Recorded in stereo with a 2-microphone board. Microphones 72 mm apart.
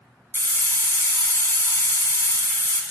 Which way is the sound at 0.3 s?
30° left (ahead or behind).